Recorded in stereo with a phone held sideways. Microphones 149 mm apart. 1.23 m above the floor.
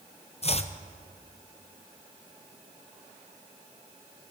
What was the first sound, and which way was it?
Chopping, 45° left (ahead or behind).